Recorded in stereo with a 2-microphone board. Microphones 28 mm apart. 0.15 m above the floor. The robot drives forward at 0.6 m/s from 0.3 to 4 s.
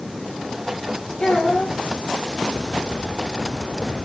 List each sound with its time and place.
1.2 s a child speaking: 50° left (ahead or behind), 2.5 m; by 1.8 s 45° left (ahead or behind), 3 m